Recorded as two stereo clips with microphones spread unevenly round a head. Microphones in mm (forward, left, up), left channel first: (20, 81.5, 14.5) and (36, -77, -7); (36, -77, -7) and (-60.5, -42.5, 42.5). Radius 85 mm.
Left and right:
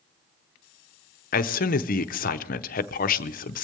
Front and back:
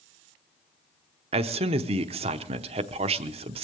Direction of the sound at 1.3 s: 110° left.